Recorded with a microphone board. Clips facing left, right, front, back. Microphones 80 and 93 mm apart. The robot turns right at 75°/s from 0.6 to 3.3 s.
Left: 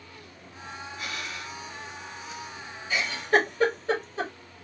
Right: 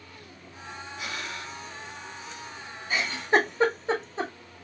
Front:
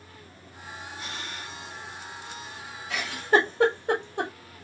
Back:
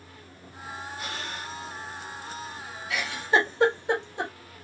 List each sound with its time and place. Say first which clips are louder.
1.0 s breathing: right 2 dB, back 2 dB; 170° right, 1.1 m; by 1.6 s 125° right, 1.1 m
2.9 s a giggle: even, front 2 dB; 50° right, 1.7 m; by 4.3 s 20° right, 1.7 m